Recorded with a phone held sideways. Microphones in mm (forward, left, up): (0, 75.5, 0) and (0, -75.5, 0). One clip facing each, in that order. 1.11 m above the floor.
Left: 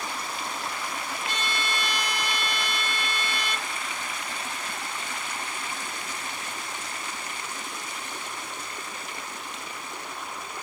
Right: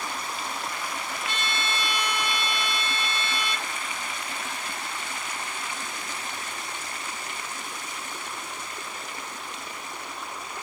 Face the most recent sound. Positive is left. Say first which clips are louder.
# even
turn(degrees=40)  # may be behind; listen again after turning